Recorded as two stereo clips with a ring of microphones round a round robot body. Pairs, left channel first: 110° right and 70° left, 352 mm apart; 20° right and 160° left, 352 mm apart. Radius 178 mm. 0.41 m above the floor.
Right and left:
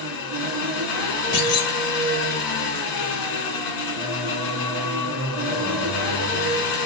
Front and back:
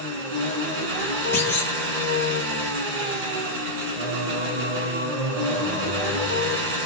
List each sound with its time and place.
0.0 s an engine running: 145° right, 1.6 m
1.3 s a clunk: 105° right, 0.9 m
4.0 s singing: 160° left, 1.1 m